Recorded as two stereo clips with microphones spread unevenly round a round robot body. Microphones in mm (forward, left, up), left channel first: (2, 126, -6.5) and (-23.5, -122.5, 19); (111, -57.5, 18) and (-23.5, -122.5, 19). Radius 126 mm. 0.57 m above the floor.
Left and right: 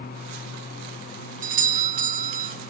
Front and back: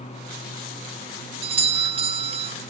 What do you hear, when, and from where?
1.4 s a doorbell: 140° right, 1.3 m